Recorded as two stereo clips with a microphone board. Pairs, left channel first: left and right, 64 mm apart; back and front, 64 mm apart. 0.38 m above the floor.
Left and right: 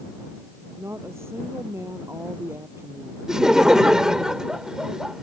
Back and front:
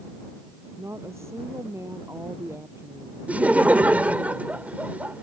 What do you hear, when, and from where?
0.8 s a woman speaking: 45° right
3.3 s laughter: 20° right